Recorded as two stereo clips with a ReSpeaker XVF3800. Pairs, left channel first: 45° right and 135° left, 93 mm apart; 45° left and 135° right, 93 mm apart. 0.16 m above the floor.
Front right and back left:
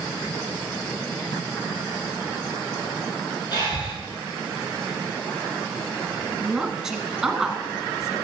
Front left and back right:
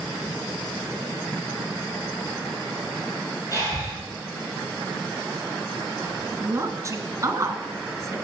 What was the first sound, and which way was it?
Breathing, 5° right.